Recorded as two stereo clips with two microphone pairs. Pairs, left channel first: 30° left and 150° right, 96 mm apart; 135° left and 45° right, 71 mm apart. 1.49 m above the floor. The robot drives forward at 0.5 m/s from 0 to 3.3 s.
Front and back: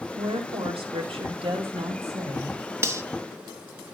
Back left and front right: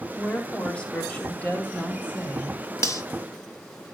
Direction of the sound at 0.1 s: 155° right.